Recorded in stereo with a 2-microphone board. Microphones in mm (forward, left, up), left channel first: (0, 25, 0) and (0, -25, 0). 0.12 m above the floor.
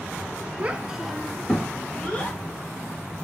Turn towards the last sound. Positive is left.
turn(degrees=30)  # may be behind; listen again after turning